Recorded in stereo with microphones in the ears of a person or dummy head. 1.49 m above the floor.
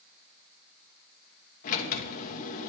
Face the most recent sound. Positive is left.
turn(degrees=50)  # may be behind; listen again after turning